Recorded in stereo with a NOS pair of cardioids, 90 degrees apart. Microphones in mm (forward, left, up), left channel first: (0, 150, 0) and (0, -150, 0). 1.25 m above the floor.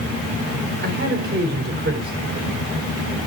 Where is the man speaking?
40° right, 4.5 m.